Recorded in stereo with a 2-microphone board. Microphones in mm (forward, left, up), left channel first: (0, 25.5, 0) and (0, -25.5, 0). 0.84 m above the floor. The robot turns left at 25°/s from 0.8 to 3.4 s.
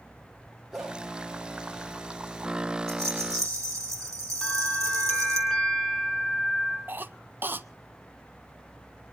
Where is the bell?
5° left (ahead or behind), 8.5 m.